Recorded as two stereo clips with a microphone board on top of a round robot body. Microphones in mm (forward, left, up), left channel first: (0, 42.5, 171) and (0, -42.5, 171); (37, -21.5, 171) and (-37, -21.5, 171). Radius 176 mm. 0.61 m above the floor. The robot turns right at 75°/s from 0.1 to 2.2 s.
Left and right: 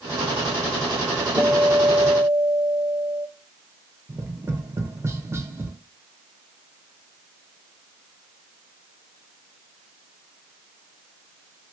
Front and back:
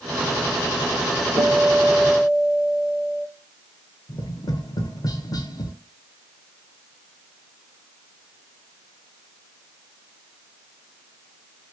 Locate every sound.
1.4 s a guitar: 160° right, 4 m; by 3.3 s 95° right, 4 m
4.1 s tapping: 30° right, 0.9 m